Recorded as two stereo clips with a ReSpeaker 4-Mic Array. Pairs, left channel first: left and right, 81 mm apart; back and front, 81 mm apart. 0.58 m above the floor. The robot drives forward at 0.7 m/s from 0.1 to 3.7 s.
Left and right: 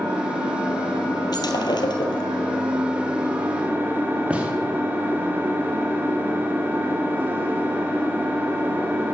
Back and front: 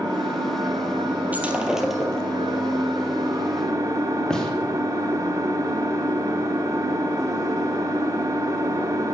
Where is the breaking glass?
70° left, 1.3 m; by 2.2 s 100° left, 1.2 m.